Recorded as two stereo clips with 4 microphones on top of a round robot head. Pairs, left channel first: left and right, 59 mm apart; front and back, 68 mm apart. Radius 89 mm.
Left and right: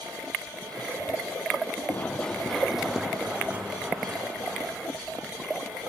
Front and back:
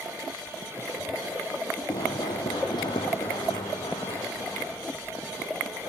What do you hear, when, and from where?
1.9 s running footsteps: 35° left, 1.6 m; by 5.3 s 35° right, 5 m